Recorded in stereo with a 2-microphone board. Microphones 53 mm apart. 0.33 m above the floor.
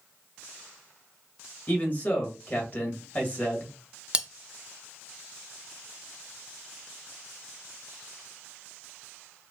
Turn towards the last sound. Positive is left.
turn(degrees=-20)  # may be behind; listen again after turning